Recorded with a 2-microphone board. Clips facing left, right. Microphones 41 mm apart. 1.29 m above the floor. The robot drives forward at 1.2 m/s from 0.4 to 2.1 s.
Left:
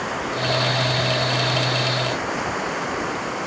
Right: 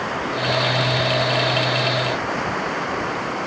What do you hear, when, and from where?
0.0 s running water: 5° right (ahead or behind)